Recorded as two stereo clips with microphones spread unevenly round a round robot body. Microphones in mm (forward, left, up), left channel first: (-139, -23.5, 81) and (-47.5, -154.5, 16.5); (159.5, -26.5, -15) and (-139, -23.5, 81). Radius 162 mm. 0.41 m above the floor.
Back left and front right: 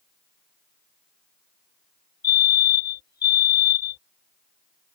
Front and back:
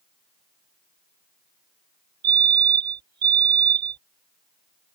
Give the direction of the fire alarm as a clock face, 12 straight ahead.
7 o'clock.